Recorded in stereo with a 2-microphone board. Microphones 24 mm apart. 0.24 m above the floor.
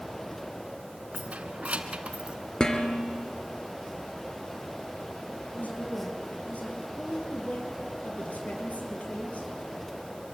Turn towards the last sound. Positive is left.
turn(degrees=75)  # may be behind; listen again after turning